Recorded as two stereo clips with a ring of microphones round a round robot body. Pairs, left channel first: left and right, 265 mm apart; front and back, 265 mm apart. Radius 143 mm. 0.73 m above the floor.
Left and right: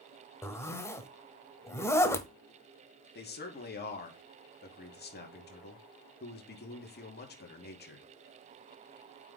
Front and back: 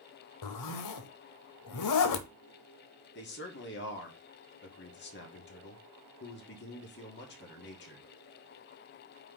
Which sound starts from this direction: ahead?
A zipper, at 0.4 s.